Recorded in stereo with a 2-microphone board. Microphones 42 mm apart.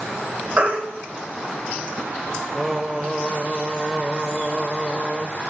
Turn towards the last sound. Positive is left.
turn(degrees=-10)  # may be behind; listen again after turning